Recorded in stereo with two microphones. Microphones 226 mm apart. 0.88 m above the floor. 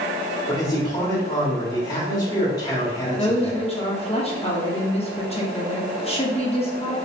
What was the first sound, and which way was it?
A man speaking, 15° left (ahead or behind).